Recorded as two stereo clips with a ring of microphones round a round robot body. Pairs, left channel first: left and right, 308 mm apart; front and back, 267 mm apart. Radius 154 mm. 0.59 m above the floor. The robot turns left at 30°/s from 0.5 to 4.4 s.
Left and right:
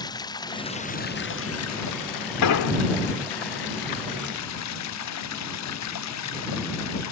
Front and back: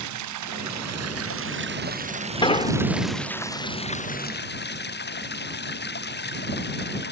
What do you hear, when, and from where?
0.0 s running water: 170° left; by 7.1 s 50° left
2.4 s an explosion: 70° left; by 2.7 s 60° left